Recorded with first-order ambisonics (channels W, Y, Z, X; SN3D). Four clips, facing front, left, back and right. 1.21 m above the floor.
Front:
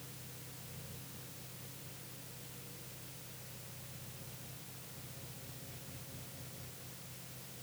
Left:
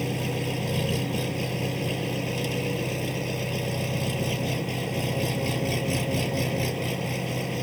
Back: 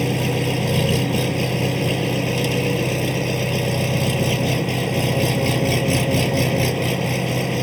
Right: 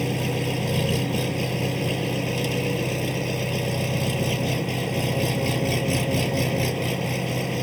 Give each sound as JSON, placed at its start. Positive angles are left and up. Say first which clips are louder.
{"t": 0.0, "sound": "an engine running", "louder": "right 3 dB, back 32 dB", "azimuth_deg": -170}